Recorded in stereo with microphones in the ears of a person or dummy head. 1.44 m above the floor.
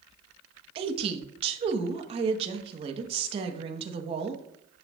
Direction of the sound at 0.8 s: 30° right (ahead or behind).